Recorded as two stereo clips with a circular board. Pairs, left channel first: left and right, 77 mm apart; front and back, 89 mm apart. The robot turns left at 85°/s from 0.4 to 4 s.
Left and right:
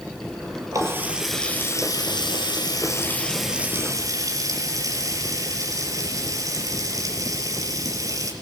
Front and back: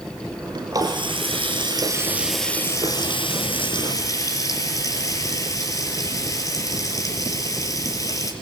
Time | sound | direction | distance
0.7 | a running tap | 130° right | 5 m